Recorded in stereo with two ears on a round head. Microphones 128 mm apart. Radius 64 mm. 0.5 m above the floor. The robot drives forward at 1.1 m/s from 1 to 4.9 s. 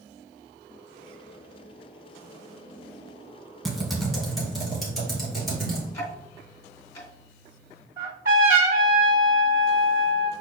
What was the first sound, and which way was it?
Typing on a keyboard, centre (ahead or behind).